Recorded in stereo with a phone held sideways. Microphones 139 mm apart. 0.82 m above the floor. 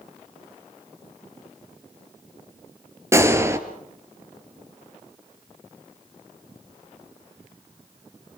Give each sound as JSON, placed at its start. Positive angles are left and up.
{"t": 3.1, "sound": "a gunshot", "side_deg": -20, "distance_m": 2.5}